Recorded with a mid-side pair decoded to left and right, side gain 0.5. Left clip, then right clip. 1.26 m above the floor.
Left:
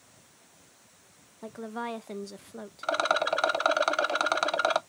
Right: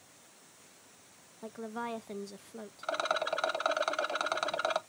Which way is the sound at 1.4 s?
30° left.